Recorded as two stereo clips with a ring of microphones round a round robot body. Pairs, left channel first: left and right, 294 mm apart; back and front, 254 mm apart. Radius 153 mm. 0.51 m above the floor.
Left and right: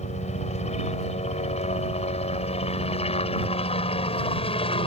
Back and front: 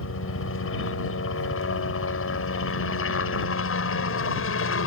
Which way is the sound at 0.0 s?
155° left.